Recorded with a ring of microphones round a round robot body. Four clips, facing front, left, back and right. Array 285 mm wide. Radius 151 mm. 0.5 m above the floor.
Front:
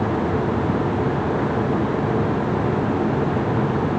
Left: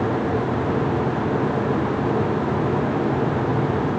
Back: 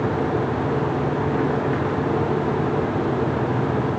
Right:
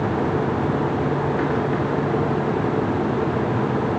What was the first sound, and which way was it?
Only background noise.